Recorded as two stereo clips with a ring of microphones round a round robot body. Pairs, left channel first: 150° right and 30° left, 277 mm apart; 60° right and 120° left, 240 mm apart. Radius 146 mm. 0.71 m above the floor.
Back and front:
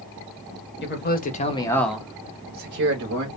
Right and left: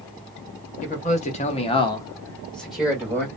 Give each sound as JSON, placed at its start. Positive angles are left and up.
{"t": 0.8, "sound": "a man speaking", "azimuth_deg": -115, "distance_m": 0.9}